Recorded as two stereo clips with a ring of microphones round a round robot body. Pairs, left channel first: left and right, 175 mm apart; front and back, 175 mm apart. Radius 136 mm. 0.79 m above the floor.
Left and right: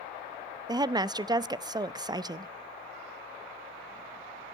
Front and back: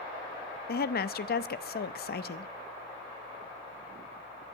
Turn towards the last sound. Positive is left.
turn(degrees=-25)